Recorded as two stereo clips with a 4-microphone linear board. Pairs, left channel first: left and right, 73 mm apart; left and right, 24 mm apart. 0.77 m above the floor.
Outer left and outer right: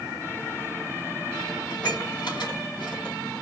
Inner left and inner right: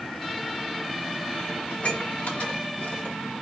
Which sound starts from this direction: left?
Dishes clattering, at 1.7 s.